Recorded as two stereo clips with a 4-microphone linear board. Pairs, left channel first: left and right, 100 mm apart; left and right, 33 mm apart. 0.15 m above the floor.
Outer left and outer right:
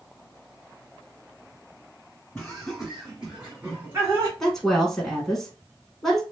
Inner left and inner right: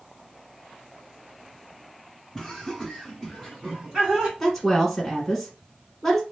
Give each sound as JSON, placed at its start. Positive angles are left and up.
{"t": 2.4, "sound": "laughter", "side_deg": 10, "distance_m": 2.0}
{"t": 4.4, "sound": "a woman speaking", "side_deg": 5, "distance_m": 1.1}